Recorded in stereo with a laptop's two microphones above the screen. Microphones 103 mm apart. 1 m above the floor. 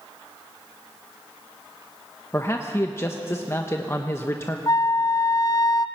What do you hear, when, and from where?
2.3 s a man speaking: 25° left (ahead or behind), 1.1 m
4.7 s a flute: 40° left (ahead or behind), 0.6 m